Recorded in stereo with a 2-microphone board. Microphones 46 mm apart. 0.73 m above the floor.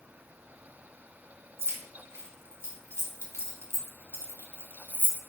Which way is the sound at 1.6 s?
75° right (ahead or behind).